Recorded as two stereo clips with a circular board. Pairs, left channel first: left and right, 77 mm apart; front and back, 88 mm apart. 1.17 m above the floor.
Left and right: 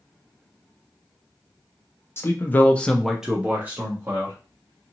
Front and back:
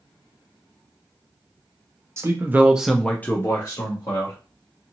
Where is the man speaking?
135° left, 0.7 m; by 4.4 s 35° right, 1.0 m.